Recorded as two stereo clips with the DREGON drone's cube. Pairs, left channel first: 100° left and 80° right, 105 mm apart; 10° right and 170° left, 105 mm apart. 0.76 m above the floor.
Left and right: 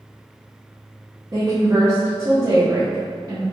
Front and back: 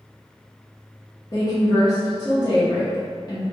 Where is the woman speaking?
45° right, 0.7 m.